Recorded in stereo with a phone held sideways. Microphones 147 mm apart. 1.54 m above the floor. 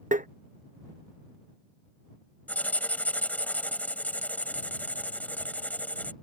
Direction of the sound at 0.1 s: 55° right (ahead or behind).